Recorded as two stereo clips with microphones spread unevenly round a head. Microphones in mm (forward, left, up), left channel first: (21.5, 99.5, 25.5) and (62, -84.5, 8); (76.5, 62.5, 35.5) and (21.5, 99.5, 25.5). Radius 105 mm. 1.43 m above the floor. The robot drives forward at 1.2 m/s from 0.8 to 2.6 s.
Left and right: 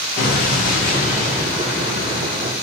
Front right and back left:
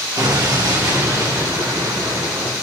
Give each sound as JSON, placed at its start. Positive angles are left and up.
{"t": 0.2, "sound": "an explosion", "azimuth_deg": 155, "distance_m": 1.3}